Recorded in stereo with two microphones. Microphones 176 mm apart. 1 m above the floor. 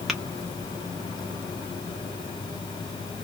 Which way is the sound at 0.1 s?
Centre (ahead or behind).